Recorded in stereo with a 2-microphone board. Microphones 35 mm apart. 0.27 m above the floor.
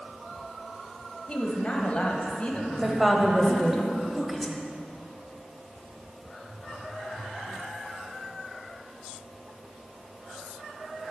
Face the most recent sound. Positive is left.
turn(degrees=-5)  # may be behind; listen again after turning